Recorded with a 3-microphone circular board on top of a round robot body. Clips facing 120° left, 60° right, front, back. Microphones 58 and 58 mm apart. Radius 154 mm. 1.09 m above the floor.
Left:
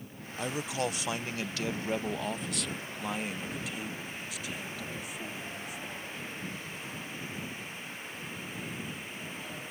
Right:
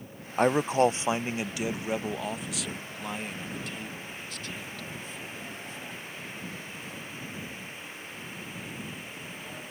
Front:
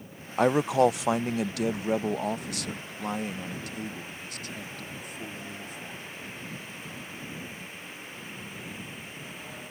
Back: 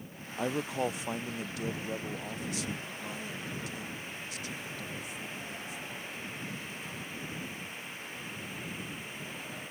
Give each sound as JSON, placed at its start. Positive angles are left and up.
{"t": 0.4, "sound": "a man speaking", "azimuth_deg": -20}